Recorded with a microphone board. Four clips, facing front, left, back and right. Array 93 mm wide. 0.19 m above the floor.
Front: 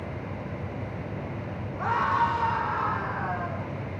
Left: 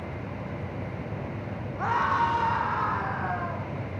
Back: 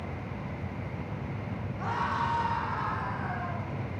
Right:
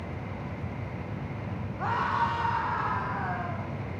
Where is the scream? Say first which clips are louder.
Left 3 dB, front 6 dB; 70° left, 10 m; by 3.7 s 80° left, 12 m.